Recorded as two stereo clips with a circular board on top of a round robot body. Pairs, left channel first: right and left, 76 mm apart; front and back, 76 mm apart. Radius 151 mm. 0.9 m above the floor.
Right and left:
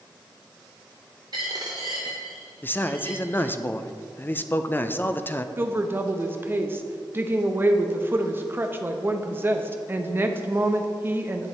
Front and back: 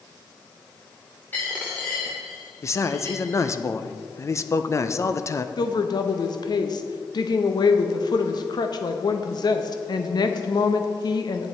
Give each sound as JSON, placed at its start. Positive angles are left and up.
{"t": 1.3, "sound": "a dropped coin", "azimuth_deg": 65, "distance_m": 0.6}
{"t": 2.6, "sound": "a man speaking", "azimuth_deg": -35, "distance_m": 0.7}
{"t": 5.6, "sound": "a woman speaking", "azimuth_deg": 25, "distance_m": 0.9}